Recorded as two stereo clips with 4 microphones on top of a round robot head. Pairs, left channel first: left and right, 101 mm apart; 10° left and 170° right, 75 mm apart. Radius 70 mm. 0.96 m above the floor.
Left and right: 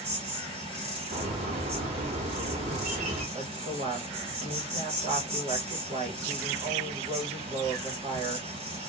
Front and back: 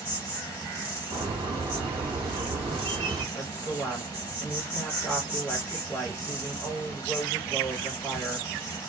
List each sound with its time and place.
0.0 s an insect: 65° right, 1.7 m
1.1 s a bird: 120° right, 1.2 m
3.3 s a woman speaking: 60° right, 1.7 m